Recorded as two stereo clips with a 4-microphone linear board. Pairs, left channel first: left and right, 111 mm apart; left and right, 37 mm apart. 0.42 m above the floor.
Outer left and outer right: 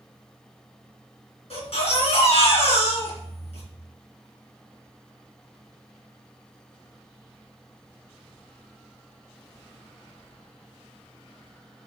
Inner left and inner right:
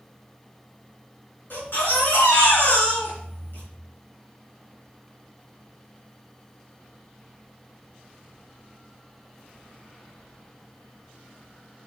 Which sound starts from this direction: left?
A baby crying, at 1.5 s.